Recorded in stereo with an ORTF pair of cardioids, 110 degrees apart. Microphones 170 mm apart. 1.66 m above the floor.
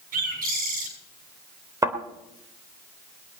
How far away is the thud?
About 3 m.